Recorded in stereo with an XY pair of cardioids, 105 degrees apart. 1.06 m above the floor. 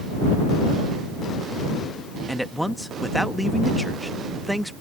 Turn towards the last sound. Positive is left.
turn(degrees=0)